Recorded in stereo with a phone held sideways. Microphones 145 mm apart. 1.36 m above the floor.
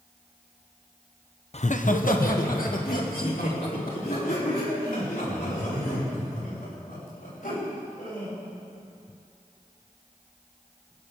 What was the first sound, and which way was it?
Laughter, 45° left (ahead or behind).